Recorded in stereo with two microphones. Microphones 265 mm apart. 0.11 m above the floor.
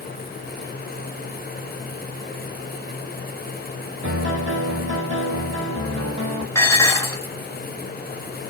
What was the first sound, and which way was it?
A piano, 50° right (ahead or behind).